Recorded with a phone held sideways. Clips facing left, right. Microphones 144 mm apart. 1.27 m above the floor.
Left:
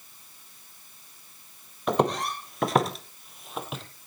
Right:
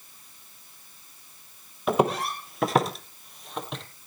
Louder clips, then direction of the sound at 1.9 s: Right 1 dB; 5° right (ahead or behind).